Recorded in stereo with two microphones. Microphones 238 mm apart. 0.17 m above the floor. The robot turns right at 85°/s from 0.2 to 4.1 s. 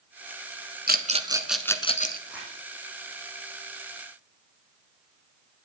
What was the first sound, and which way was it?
A rattle, 40° right (ahead or behind).